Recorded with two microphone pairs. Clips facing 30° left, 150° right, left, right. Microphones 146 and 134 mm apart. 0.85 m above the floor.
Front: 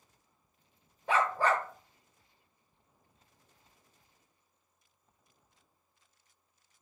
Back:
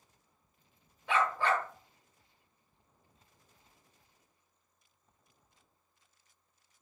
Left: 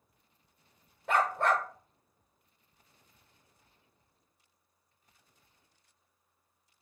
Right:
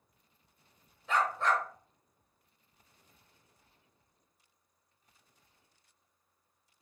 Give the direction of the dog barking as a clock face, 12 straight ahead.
10 o'clock.